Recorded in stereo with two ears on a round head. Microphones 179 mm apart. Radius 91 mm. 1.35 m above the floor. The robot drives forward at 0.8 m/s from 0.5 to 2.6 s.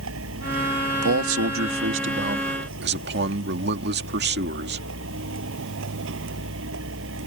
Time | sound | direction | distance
0.0 | a vehicle | 80° right | ?
1.0 | a man speaking | 80° right | ?